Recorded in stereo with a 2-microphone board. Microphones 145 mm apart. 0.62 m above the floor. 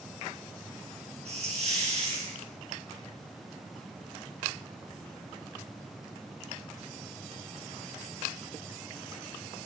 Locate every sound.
1.2 s a hiss: 45° right (ahead or behind), 4 m